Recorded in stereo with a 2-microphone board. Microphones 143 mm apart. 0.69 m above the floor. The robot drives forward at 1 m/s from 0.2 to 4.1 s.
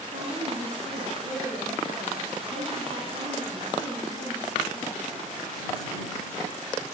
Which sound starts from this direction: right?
A woman speaking, at 0.1 s.